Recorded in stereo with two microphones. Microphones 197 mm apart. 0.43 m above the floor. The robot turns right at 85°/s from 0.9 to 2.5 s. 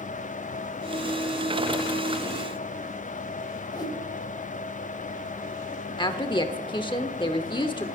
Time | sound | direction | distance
3.7 | a whoosh | 20° left (ahead or behind) | 0.9 m
6.0 | a woman speaking | 25° left (ahead or behind) | 0.7 m